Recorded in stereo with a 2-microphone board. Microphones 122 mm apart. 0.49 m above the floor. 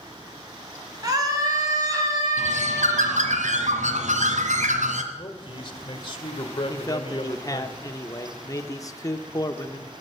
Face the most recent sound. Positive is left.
turn(degrees=30)  # may be behind; listen again after turning